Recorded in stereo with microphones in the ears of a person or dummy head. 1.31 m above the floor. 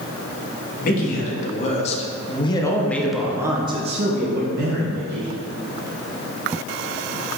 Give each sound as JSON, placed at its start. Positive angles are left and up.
{"t": 0.8, "sound": "a man speaking", "side_deg": 50, "distance_m": 1.8}